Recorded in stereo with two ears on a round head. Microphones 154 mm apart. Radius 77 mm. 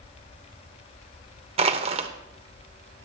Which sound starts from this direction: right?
Crushing, at 1.6 s.